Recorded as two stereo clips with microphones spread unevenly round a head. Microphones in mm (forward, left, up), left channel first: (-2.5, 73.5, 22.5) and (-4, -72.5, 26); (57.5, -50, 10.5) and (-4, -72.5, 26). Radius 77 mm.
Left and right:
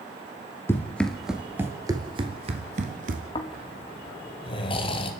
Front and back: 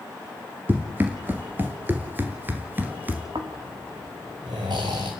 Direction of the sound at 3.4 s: 145° left.